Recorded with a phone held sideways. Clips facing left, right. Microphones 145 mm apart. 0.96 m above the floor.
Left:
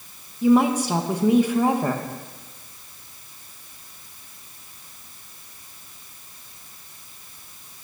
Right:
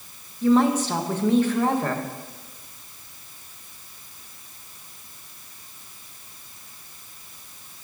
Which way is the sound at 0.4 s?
10° left (ahead or behind).